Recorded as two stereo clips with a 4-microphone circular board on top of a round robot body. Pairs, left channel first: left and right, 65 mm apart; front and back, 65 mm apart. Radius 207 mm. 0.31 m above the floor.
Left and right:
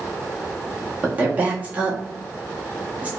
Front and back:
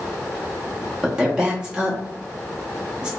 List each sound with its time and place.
1.0 s a woman speaking: 125° right, 1.6 m